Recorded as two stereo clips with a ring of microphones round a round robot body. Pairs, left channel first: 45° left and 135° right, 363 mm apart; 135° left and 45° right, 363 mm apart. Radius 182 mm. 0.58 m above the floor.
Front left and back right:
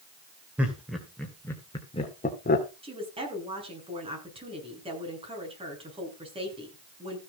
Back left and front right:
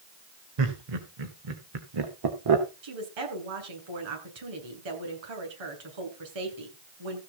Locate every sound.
0.6 s laughter: 50° right, 2.5 m; by 2.7 s 15° right, 1.9 m
2.8 s a woman speaking: 60° right, 8 m